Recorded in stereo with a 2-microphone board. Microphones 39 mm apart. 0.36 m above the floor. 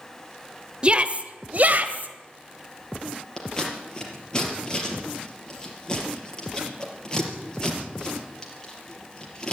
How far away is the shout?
About 1.0 m.